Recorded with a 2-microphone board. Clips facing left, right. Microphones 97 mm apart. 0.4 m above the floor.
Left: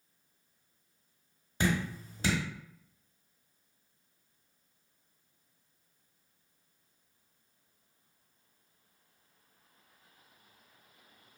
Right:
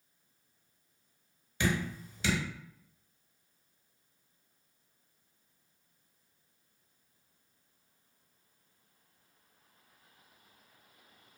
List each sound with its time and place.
1.6 s dripping: 40° left (ahead or behind), 0.9 m